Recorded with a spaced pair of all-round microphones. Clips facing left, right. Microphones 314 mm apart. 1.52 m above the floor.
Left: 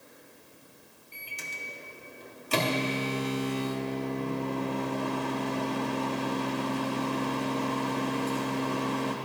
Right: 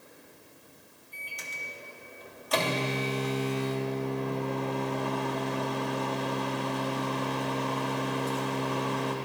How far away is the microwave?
About 0.7 m.